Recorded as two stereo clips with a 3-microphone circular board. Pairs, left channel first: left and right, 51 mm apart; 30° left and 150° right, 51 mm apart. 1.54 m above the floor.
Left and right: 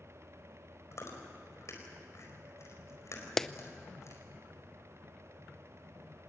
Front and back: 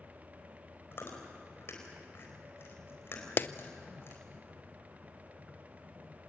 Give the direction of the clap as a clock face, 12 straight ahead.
12 o'clock.